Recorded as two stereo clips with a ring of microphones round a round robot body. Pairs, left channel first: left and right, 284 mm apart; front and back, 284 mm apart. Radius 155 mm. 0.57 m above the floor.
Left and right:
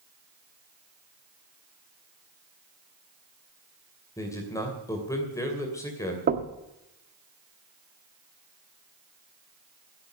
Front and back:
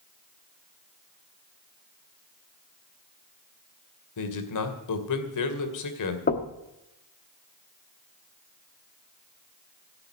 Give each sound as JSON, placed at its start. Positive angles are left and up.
{"t": 4.2, "sound": "a man speaking", "azimuth_deg": 10, "distance_m": 2.5}
{"t": 6.3, "sound": "knocking", "azimuth_deg": -45, "distance_m": 1.0}